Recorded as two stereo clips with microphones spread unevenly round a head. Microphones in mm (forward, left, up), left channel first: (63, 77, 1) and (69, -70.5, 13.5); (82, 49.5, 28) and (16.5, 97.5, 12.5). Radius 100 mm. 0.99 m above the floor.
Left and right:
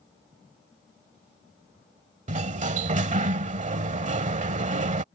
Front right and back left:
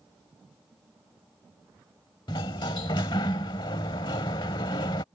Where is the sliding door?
60° right.